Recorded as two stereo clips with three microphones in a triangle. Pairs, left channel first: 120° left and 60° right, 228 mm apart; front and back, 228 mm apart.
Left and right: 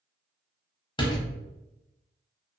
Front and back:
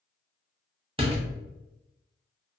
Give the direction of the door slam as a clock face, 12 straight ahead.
7 o'clock.